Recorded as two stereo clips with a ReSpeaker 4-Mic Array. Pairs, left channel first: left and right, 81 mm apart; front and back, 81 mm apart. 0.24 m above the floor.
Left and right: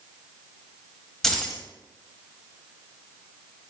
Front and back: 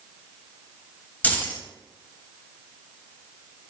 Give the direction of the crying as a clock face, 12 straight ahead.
No crying in this recording.